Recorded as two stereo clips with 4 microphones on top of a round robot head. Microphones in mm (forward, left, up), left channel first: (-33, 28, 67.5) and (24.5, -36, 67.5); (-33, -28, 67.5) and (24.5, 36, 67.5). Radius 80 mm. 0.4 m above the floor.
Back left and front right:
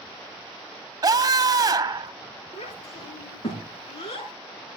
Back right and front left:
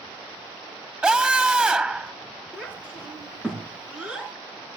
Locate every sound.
1.0 s a scream: 25° right, 1.5 m
2.5 s a child speaking: 130° left, 6 m